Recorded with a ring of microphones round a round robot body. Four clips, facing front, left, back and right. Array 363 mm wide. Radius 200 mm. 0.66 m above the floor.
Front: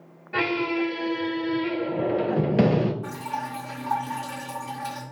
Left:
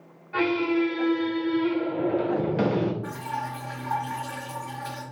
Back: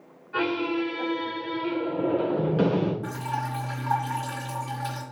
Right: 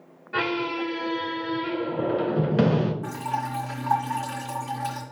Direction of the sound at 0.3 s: 30° right.